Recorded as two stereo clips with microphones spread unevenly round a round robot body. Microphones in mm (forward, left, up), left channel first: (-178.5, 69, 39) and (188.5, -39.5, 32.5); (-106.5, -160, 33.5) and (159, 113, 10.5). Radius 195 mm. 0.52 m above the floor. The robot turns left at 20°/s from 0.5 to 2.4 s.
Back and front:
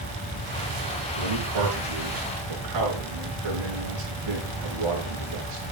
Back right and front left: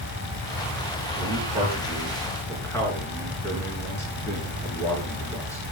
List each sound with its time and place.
1.2 s a man speaking: 25° right, 8.5 m; by 5.6 s 50° right, 8.5 m